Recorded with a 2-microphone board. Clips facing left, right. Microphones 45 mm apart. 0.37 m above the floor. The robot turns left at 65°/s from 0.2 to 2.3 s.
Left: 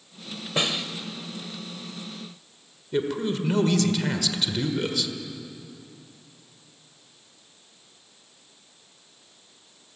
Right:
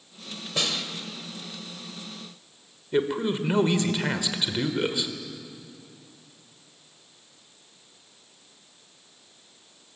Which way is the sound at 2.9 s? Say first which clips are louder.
Right 1 dB; 25° right (ahead or behind).